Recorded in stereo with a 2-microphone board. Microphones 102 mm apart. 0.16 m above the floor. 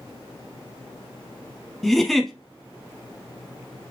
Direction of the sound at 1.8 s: Centre (ahead or behind).